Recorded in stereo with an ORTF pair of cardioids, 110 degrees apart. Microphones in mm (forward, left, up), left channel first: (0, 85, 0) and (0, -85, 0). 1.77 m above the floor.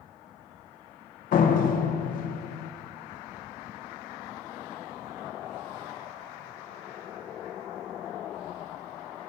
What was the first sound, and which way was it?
A door slam, 60° left.